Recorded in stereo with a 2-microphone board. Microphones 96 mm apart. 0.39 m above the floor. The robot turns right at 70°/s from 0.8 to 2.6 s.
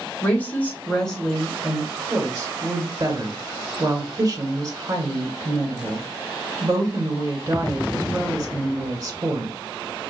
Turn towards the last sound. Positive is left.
turn(degrees=-30)  # may be behind; listen again after turning